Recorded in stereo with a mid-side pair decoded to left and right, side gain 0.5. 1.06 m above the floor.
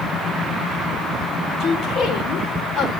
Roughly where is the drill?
I don't hear a drill.